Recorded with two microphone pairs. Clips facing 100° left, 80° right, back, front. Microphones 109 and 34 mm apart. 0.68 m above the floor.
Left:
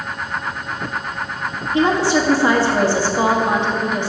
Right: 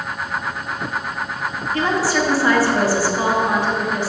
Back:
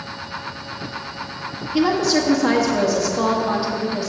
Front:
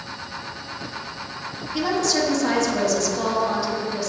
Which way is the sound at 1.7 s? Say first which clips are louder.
Left 4 dB, back 4 dB; 125° left.